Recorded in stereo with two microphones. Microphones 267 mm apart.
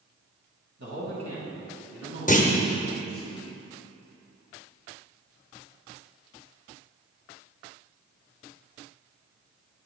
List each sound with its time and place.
0.8 s a man speaking: 65° right (ahead or behind), 2 m; by 3.3 s 35° right (ahead or behind), 4 m
2.3 s a clunk: 30° left (ahead or behind), 0.9 m